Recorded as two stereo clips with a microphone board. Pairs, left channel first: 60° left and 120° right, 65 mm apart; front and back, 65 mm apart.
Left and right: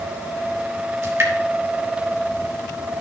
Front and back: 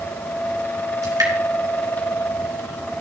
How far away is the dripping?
About 3 m.